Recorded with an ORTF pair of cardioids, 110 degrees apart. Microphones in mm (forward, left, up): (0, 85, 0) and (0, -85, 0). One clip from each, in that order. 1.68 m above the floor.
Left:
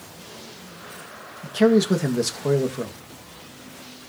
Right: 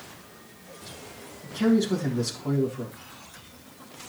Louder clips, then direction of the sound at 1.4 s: Left 7 dB; 65° left.